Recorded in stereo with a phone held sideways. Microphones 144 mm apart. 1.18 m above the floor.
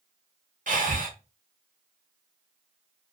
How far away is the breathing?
About 1.6 m.